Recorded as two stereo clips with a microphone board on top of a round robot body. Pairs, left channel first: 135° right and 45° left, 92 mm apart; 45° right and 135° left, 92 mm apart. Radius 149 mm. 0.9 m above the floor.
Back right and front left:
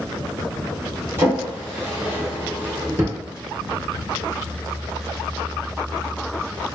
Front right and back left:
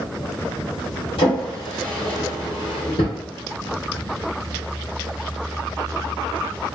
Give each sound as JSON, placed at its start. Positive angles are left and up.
{"t": 1.2, "sound": "a drawer", "azimuth_deg": -20, "distance_m": 0.9}